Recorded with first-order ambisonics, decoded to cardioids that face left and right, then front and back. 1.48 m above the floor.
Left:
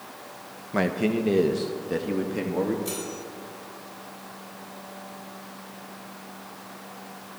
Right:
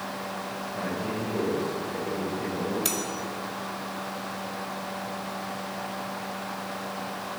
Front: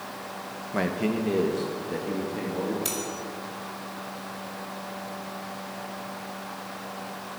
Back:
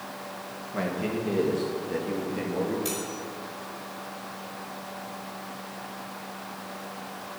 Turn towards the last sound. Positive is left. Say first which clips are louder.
# right 4 dB, even
turn(degrees=-70)